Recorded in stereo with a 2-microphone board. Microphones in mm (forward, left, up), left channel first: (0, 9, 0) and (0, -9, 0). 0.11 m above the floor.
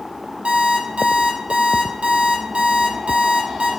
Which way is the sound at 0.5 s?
70° right (ahead or behind).